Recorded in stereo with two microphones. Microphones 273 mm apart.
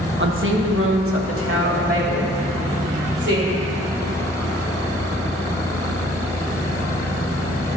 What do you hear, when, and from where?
0.2 s a woman speaking: 45° right (ahead or behind), 1.1 m; by 3.5 s 55° right (ahead or behind), 4 m